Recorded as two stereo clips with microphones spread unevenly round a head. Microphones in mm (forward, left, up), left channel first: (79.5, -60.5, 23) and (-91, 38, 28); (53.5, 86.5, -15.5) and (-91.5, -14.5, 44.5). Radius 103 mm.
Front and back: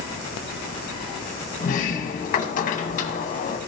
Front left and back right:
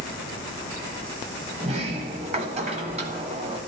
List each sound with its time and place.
1.6 s a sliding door: 80° right, 1.0 m